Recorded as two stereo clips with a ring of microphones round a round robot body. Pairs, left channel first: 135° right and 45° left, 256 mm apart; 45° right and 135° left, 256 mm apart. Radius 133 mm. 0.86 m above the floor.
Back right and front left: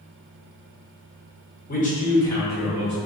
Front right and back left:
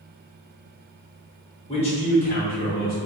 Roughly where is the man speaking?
Right.